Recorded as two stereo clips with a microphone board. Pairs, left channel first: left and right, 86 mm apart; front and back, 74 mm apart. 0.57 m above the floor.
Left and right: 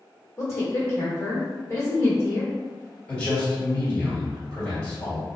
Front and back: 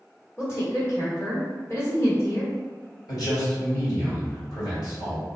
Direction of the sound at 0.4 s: 45° left.